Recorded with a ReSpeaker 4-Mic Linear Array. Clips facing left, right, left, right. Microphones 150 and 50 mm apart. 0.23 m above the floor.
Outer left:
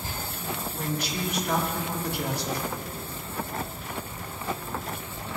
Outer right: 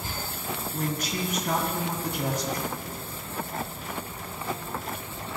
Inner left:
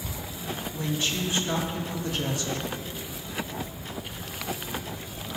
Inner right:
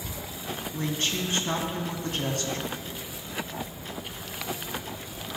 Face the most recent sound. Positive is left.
turn(degrees=-50)  # may be behind; listen again after turning